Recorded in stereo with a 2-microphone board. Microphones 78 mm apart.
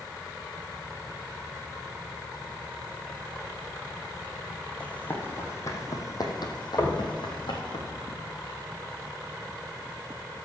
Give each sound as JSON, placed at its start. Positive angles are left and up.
{"t": 4.8, "sound": "running footsteps", "side_deg": 20, "distance_m": 2.5}
{"t": 6.8, "sound": "knocking", "side_deg": 50, "distance_m": 1.6}